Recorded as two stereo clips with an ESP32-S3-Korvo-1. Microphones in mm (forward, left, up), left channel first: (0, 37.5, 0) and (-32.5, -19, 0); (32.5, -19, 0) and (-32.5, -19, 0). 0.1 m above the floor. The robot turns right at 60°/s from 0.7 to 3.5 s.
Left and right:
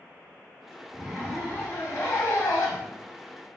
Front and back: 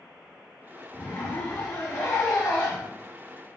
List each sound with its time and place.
0.9 s a zipper: 40° right, 2.0 m; by 2.9 s 75° left, 2.0 m